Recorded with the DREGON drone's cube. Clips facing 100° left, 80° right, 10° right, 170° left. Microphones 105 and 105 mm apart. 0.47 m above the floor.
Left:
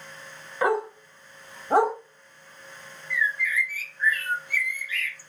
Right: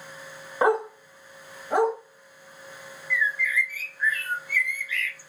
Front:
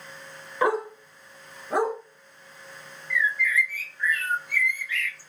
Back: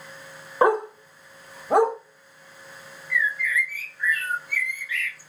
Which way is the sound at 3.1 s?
90° left.